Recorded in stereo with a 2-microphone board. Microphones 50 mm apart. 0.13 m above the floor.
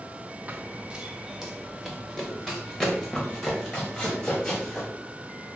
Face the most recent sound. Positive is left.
turn(degrees=20)  # may be behind; listen again after turning